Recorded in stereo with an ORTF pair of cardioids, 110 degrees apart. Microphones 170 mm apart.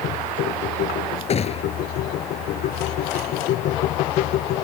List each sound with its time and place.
0.0 s a machine running: 65° left
1.3 s a gunshot: 40° left